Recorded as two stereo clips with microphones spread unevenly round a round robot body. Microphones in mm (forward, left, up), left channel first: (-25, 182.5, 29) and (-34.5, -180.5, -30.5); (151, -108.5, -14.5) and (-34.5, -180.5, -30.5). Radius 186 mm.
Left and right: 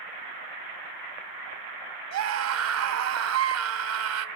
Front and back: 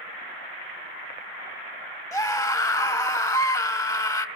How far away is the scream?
About 2.5 m.